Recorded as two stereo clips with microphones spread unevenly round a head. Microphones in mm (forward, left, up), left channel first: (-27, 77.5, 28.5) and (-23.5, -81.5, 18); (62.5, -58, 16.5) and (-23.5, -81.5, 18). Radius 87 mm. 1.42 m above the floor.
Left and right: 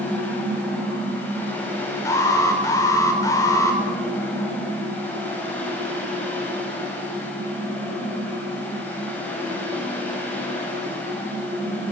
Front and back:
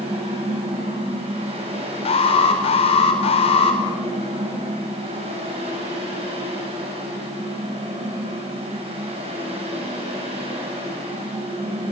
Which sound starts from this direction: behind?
A fan, at 0.0 s.